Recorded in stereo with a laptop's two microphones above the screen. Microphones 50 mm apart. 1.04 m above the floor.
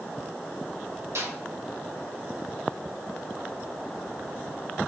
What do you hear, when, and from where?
1.1 s a snare drum: 70° right (ahead or behind), 2 m